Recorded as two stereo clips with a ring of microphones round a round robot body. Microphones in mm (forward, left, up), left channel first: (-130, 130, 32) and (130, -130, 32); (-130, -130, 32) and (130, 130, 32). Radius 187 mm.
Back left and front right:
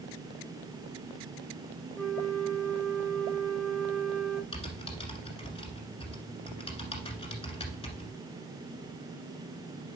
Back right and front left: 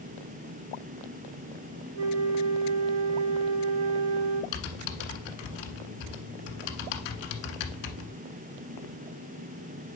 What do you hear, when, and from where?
1.9 s a flute: 45° left, 0.9 m
4.5 s typing on a keyboard: 150° right, 1.5 m